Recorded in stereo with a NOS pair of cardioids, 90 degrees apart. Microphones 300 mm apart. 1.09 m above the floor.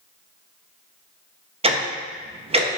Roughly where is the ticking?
Ahead.